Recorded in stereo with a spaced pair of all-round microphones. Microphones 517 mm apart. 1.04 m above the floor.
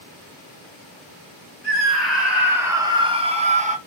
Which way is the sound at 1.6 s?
Centre (ahead or behind).